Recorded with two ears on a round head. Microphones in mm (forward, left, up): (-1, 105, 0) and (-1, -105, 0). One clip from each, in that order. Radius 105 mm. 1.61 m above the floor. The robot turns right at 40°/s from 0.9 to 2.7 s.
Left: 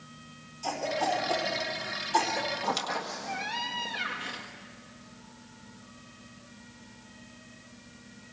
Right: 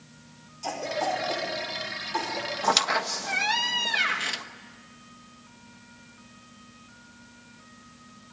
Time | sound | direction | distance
0.6 | a cough | 5° right (ahead or behind) | 5 m
2.6 | a squeak | 60° right (ahead or behind) | 1.4 m